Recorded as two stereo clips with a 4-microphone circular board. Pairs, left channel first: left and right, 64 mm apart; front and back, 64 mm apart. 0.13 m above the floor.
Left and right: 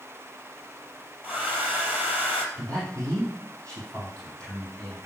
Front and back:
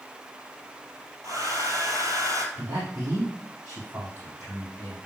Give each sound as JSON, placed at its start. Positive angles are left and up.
{"t": 1.2, "sound": "a hair dryer", "azimuth_deg": -150, "distance_m": 2.5}
{"t": 2.5, "sound": "a man speaking", "azimuth_deg": -120, "distance_m": 5.0}